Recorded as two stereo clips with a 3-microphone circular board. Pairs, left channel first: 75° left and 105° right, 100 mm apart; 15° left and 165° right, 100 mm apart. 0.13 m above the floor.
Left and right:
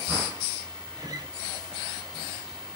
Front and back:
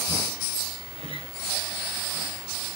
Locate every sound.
1.0 s a guitar: 150° right, 1.4 m